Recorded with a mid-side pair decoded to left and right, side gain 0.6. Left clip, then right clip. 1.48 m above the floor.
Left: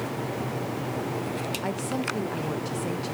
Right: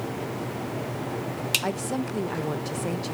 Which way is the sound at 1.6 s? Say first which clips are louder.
Even; 20° right.